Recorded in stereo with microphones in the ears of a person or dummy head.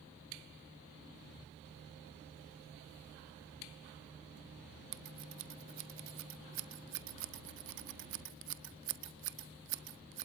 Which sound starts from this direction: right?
Scissors, at 4.9 s.